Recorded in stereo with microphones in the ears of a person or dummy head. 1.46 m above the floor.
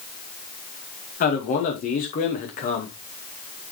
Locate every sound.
1.2 s a man speaking: 50° left (ahead or behind), 2 m